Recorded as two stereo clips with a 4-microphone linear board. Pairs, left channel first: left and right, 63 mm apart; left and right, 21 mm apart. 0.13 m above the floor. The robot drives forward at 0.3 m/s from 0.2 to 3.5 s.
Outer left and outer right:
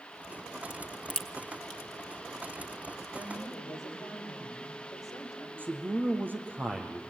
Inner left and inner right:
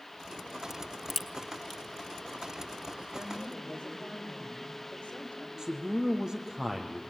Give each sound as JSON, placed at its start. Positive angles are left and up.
{"t": 0.7, "sound": "a crack", "side_deg": 10, "distance_m": 2.0}
{"t": 3.1, "sound": "a woman speaking", "side_deg": 60, "distance_m": 7.5}
{"t": 5.6, "sound": "a man speaking", "side_deg": -30, "distance_m": 4.0}